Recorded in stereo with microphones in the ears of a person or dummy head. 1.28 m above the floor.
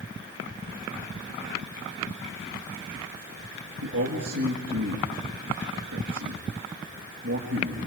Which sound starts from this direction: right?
A man speaking, at 3.8 s.